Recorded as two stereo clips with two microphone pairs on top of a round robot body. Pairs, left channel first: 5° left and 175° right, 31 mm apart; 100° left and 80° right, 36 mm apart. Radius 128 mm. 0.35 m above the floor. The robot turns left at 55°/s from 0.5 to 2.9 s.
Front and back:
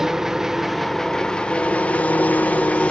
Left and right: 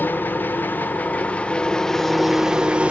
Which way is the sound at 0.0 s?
110° left.